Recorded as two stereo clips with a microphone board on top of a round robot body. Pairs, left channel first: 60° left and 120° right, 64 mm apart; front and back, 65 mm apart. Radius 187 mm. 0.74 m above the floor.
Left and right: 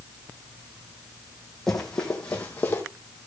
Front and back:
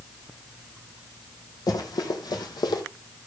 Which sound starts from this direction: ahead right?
Running footsteps, at 1.7 s.